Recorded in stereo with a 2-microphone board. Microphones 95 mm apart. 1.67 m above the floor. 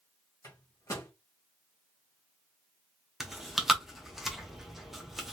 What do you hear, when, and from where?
0.4 s a microwave: 30° left (ahead or behind), 1.5 m
3.2 s chewing: 5° right (ahead or behind), 0.8 m